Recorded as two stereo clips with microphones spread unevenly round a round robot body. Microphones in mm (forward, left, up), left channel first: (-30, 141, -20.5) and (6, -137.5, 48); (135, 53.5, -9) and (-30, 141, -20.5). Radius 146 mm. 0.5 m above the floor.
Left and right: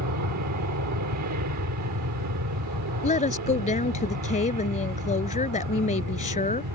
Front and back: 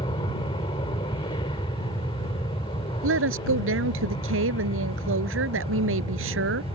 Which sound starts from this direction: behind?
A woman speaking, at 3.0 s.